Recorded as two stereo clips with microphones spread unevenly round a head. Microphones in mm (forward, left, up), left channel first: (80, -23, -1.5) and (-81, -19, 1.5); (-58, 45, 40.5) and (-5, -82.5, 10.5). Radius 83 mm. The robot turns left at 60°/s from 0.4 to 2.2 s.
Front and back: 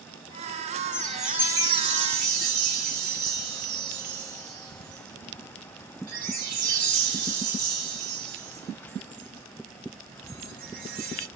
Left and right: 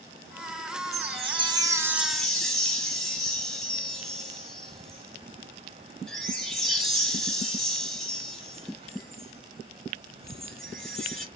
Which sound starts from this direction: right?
A chime, at 0.9 s.